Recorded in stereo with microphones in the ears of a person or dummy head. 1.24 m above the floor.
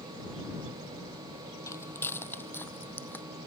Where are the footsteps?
15° left (ahead or behind); by 3.3 s 10° left (ahead or behind).